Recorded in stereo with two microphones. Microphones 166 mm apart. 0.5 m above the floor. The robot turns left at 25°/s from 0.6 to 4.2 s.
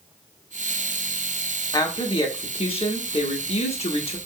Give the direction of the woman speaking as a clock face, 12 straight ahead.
7 o'clock.